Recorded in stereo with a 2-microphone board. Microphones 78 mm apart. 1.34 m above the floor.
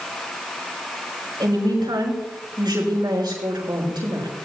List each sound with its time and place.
1.4 s a woman speaking: 75° right (ahead or behind), 5.5 m